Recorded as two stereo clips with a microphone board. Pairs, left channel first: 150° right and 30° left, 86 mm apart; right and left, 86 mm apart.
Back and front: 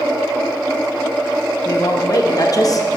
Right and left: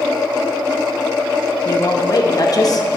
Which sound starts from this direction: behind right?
A woman speaking, at 1.6 s.